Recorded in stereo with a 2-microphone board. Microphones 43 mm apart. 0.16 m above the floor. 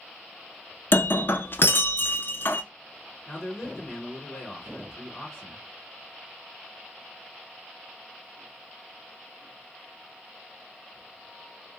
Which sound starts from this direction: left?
Breaking glass, at 0.9 s.